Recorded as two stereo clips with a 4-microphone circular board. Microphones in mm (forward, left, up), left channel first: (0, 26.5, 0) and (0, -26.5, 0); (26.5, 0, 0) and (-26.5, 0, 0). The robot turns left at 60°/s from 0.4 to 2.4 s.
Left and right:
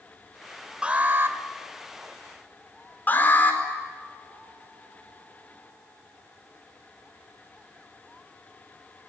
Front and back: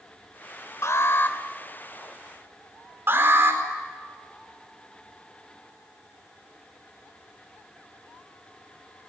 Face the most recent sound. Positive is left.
turn(degrees=140)